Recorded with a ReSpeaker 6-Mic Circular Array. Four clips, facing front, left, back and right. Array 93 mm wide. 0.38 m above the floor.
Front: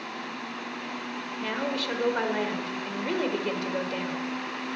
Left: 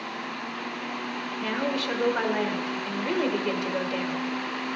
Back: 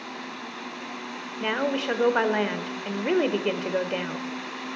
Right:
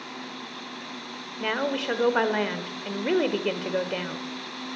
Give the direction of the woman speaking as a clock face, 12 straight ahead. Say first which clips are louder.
Right 2 dB, back 5 dB; 5 o'clock.